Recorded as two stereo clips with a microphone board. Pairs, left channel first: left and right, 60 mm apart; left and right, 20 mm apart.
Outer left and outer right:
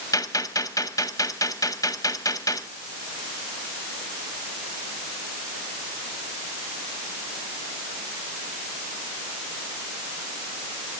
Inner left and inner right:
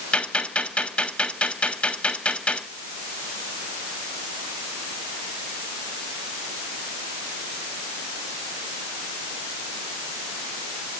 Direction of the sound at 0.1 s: 65° left (ahead or behind).